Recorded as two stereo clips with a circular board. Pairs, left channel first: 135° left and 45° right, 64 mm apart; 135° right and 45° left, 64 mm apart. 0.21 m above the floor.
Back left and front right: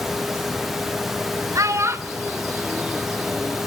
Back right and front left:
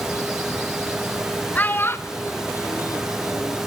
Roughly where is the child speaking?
Right.